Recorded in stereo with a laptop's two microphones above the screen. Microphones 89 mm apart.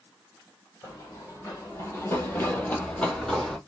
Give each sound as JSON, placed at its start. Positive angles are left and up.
{"t": 0.8, "sound": "running footsteps", "side_deg": 35, "distance_m": 1.5}